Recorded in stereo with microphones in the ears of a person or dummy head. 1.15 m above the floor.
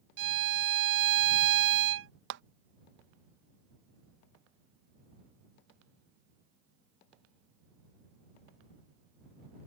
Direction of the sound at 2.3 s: 55° right (ahead or behind).